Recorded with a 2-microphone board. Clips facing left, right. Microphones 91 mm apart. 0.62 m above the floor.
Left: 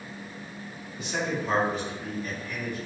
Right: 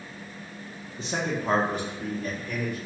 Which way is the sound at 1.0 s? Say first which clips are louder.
Right 1 dB; 30° right (ahead or behind).